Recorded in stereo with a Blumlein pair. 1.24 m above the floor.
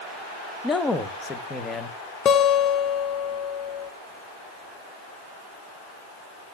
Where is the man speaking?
15° left, 0.8 m.